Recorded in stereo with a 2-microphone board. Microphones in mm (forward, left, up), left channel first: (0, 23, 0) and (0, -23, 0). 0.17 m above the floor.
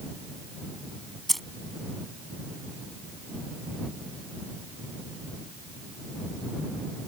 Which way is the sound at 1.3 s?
5° left (ahead or behind).